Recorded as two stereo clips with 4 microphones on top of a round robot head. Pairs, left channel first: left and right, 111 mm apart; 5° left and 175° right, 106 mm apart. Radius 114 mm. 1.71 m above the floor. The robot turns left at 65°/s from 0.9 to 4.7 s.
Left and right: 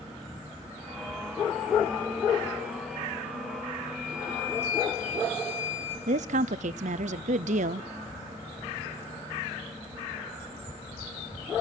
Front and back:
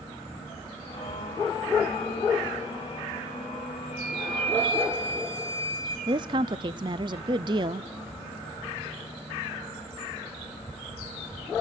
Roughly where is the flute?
Behind left.